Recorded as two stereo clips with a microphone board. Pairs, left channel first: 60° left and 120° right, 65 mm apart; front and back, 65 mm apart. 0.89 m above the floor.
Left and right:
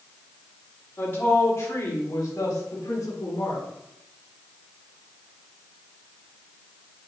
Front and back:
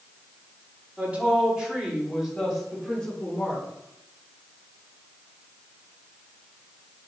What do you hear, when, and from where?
1.0 s a woman speaking: 115° left, 2.5 m; by 3.6 s 75° left, 3.5 m